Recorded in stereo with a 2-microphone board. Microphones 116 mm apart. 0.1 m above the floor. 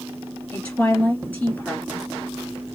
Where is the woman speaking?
15° left (ahead or behind), 1.8 m.